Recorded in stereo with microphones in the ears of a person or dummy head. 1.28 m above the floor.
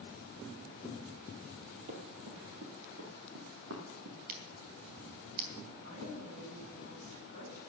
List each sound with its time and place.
1.9 s running footsteps: 40° right (ahead or behind), 2.0 m; by 4.2 s 70° right (ahead or behind), 3.5 m
4.3 s scissors: 50° right (ahead or behind), 2.5 m
5.8 s a woman speaking: 55° right (ahead or behind), 9 m